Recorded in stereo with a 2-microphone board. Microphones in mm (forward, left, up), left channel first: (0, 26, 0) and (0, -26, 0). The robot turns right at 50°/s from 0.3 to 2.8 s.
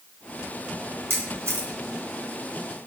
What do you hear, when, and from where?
1.1 s a camera shutter: 50° right (ahead or behind), 2.5 m; by 1.7 s 60° right (ahead or behind), 2.5 m